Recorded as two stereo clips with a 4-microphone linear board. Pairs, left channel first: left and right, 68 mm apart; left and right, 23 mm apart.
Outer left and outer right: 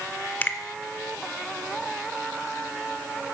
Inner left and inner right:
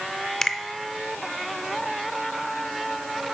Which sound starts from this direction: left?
A finger snap, at 0.4 s.